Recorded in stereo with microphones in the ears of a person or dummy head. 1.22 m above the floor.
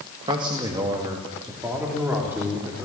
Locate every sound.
0.3 s a man speaking: 25° right (ahead or behind), 1.9 m; by 2.9 s 10° right (ahead or behind), 4.5 m